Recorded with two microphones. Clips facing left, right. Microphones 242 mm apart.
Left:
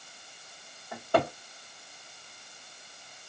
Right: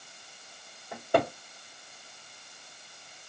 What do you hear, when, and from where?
0.9 s a cupboard door: 15° right (ahead or behind), 1.3 m